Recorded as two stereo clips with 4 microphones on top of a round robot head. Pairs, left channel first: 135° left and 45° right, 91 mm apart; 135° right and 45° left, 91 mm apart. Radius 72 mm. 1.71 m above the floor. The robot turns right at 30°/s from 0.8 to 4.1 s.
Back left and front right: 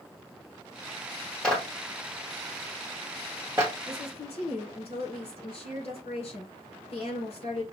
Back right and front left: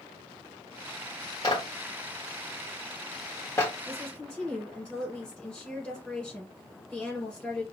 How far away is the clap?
About 0.8 m.